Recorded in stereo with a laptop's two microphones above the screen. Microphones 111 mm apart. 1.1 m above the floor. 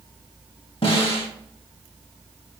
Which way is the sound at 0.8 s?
55° left (ahead or behind).